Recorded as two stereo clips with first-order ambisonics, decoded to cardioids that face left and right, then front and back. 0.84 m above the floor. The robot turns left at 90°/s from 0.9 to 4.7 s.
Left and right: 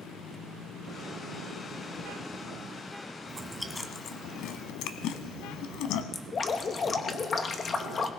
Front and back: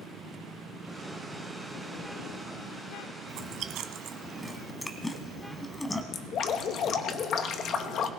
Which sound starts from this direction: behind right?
Chewing, at 3.3 s.